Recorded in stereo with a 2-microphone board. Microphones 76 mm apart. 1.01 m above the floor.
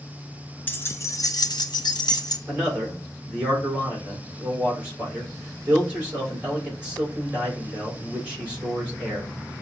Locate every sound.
0.7 s keys jangling: 25° left (ahead or behind), 0.6 m; by 2.4 s 60° left (ahead or behind), 0.7 m
2.5 s a man speaking: 25° right (ahead or behind), 3 m